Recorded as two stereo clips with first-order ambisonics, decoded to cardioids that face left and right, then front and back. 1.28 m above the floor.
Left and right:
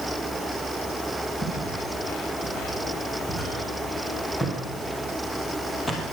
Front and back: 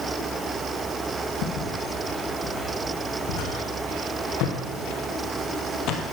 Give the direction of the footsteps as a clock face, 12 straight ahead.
12 o'clock.